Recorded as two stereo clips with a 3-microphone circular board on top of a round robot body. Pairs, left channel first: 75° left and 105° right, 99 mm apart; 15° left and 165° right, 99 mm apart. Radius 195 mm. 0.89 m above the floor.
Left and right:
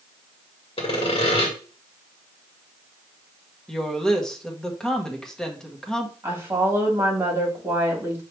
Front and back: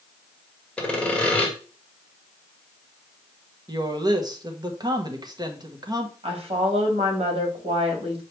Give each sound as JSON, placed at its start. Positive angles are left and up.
{"t": 0.8, "sound": "sawing", "azimuth_deg": 95, "distance_m": 1.7}
{"t": 3.7, "sound": "a woman speaking", "azimuth_deg": 160, "distance_m": 1.2}
{"t": 6.2, "sound": "a woman speaking", "azimuth_deg": -170, "distance_m": 2.0}